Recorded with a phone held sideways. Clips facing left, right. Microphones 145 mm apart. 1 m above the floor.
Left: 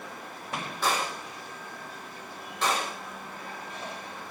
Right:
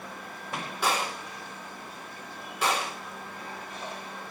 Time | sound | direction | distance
0.8 | a gunshot | 10° right (ahead or behind) | 5.5 m